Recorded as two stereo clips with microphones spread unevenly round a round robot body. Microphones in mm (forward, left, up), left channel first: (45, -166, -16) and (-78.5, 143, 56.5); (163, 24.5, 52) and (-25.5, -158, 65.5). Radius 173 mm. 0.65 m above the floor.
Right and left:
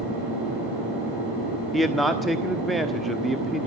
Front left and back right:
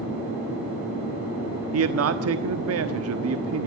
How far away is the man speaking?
About 1.3 m.